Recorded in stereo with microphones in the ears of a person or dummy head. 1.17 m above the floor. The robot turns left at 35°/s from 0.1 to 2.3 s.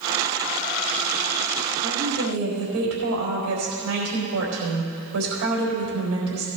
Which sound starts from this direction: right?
A woman speaking, at 1.8 s.